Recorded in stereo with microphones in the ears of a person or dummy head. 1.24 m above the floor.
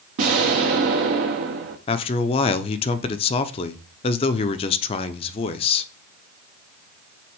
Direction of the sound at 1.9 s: 30° left (ahead or behind).